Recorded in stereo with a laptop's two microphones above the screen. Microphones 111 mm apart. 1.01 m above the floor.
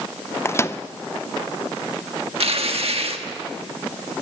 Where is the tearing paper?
65° right (ahead or behind), 1.4 m.